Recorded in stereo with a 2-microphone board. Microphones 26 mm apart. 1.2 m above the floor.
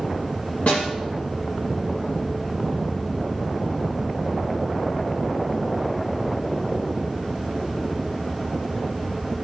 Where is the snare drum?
60° left (ahead or behind), 8 m.